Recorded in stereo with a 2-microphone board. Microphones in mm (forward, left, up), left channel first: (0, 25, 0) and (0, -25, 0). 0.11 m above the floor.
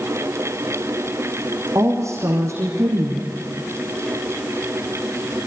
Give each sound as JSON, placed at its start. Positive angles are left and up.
{"t": 1.8, "sound": "a woman speaking", "side_deg": -70, "distance_m": 4.5}